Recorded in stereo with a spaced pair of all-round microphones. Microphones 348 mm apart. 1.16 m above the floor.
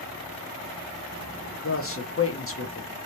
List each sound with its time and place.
1.6 s a man speaking: 40° left (ahead or behind), 0.9 m